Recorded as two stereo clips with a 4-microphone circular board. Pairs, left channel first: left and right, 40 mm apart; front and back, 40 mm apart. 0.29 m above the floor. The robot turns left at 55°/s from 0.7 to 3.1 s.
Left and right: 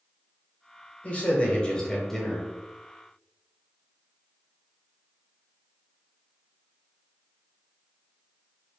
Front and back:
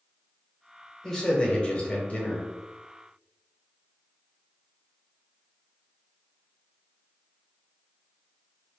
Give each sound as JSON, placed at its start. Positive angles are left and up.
{"t": 1.0, "sound": "a man speaking", "azimuth_deg": 80, "distance_m": 1.0}